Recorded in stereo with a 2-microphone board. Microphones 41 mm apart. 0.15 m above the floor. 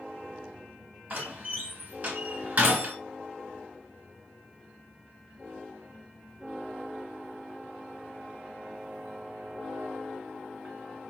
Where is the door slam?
35° right (ahead or behind), 1.2 m.